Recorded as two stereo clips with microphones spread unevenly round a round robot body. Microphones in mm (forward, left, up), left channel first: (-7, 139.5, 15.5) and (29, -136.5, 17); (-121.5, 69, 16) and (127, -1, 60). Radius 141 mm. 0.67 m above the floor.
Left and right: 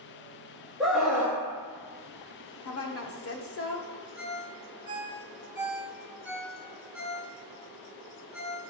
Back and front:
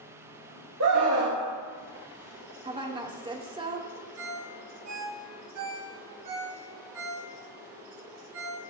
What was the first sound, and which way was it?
A scream, 5° left.